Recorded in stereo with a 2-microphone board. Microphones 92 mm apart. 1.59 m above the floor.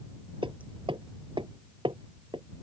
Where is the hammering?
70° right (ahead or behind).